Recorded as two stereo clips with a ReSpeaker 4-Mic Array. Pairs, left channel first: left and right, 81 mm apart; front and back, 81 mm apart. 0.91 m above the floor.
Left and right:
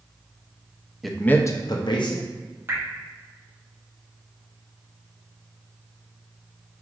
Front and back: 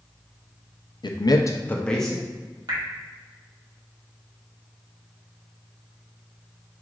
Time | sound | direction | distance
1.0 | a man speaking | straight ahead | 0.5 m
2.7 | dripping | 145° right | 0.9 m